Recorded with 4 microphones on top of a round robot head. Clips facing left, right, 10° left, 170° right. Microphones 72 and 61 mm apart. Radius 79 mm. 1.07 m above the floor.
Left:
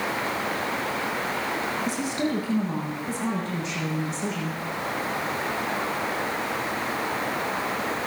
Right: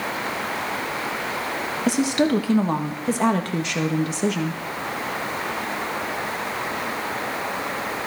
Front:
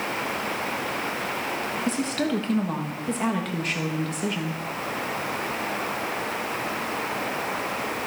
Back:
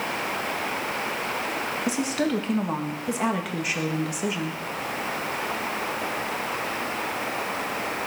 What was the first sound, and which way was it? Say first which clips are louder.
A woman speaking: right 7 dB, back 1 dB; 90° right.